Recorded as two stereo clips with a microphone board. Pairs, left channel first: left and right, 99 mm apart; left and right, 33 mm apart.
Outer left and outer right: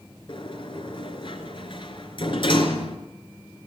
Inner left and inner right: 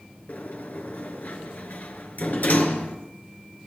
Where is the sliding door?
55° left (ahead or behind), 3 m.